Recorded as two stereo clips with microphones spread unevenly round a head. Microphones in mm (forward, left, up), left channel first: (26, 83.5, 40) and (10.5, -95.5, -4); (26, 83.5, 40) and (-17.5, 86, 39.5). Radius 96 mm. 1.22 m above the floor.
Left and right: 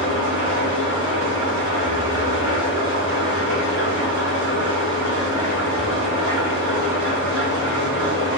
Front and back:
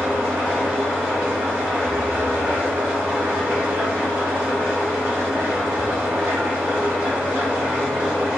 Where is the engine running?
135° right, 1.3 m.